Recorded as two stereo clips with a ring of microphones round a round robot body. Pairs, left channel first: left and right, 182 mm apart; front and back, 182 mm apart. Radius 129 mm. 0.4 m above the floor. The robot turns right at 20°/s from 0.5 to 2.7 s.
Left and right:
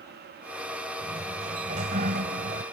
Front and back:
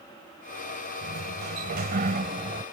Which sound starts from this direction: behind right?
A sliding door, at 1.0 s.